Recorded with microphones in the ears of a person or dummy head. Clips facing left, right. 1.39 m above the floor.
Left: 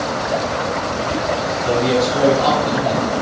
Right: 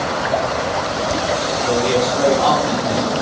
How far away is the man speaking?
About 3.5 m.